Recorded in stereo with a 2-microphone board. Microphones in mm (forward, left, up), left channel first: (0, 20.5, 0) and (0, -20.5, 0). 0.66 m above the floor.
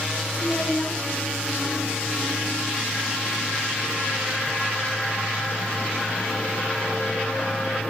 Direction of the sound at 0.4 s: 45° left (ahead or behind).